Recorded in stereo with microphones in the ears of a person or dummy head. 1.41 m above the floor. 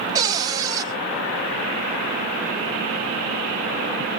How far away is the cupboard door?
About 3 m.